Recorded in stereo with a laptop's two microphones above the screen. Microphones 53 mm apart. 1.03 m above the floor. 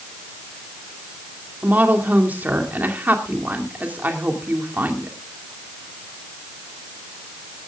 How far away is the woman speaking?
About 2 m.